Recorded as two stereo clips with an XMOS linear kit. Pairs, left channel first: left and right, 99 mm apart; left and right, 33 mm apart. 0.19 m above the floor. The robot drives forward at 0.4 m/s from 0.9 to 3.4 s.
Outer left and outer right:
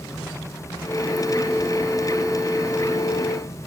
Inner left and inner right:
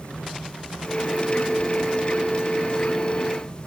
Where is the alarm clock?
I don't hear an alarm clock.